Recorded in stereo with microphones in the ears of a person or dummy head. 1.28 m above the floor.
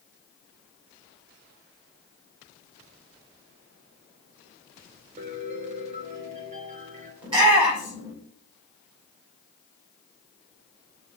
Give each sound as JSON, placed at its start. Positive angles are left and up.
{"t": 5.2, "sound": "a piano", "side_deg": -45, "distance_m": 1.6}
{"t": 7.2, "sound": "a shout", "side_deg": -30, "distance_m": 6.0}